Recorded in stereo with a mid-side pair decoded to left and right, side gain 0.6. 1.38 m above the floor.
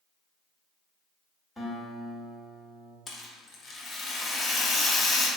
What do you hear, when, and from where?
1.6 s a guitar: 10° left, 1.5 m
3.1 s a rattle: 35° left, 0.8 m